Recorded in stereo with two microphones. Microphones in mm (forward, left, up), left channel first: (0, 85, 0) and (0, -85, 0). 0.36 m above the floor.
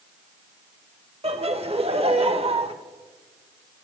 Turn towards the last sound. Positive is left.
turn(degrees=-35)  # may be behind; listen again after turning